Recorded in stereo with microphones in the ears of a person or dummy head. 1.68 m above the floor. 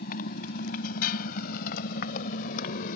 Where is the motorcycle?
55° left (ahead or behind).